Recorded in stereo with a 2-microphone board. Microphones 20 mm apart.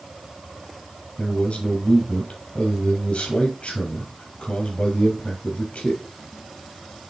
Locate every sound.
1.2 s a man speaking: 70° left (ahead or behind), 3 m